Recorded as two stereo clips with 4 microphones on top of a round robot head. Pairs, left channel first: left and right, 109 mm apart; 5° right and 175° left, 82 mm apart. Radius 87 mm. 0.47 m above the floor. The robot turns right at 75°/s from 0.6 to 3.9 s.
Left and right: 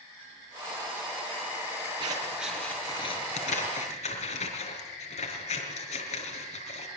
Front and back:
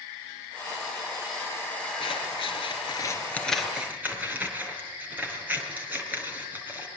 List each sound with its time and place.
2.0 s scissors: 35° right, 6 m; by 6.9 s 105° left, 6 m